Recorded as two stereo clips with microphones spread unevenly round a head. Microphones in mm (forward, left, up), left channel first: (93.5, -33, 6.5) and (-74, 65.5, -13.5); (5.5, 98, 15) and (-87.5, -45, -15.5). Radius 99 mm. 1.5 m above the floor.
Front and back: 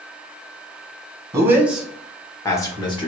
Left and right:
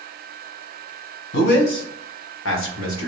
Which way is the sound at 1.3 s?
75° left.